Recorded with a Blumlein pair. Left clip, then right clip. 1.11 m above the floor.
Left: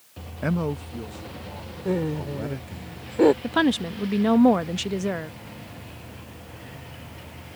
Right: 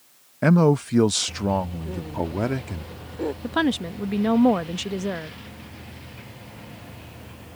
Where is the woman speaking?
Straight ahead.